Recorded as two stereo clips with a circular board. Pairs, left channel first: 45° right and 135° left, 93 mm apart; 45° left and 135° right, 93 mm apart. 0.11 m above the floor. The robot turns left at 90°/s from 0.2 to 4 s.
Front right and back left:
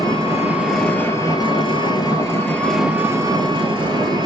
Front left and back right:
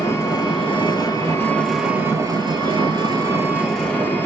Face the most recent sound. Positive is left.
turn(degrees=110)